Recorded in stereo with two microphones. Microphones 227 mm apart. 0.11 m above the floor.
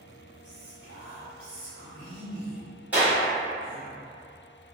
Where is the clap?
5° right (ahead or behind), 1.5 m.